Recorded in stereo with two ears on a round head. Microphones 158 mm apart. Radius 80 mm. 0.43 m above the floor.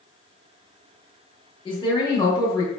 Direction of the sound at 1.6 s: 25° left (ahead or behind).